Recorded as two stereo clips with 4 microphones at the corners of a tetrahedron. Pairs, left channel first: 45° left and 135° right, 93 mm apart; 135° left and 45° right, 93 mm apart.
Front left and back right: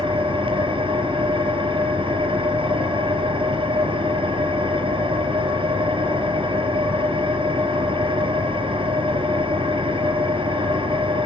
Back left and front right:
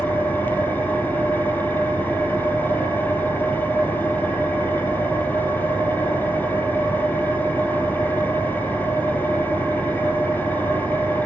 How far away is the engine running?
About 4 m.